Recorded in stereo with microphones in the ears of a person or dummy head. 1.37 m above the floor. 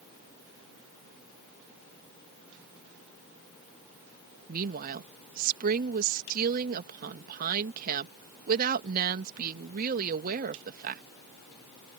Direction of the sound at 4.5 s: 55° right (ahead or behind).